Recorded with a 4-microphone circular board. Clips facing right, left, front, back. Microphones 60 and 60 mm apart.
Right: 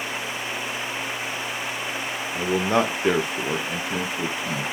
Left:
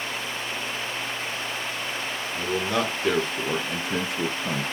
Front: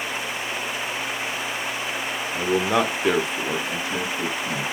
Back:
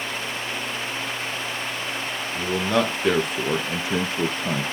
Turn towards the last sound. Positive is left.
turn(degrees=150)